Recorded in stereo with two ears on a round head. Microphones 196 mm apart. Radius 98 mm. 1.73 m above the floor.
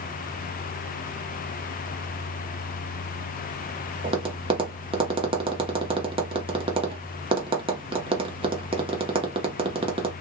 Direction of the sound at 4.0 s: 25° right (ahead or behind).